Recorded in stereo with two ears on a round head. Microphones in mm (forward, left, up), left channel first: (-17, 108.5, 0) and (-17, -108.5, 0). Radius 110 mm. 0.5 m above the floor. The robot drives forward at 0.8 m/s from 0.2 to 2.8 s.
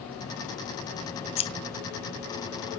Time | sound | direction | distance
1.4 | scissors | 25° left (ahead or behind) | 0.5 m